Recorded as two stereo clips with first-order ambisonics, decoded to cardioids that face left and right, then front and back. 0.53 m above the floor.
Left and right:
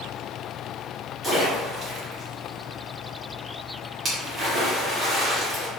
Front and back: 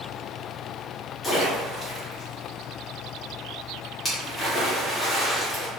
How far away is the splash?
About 1.0 m.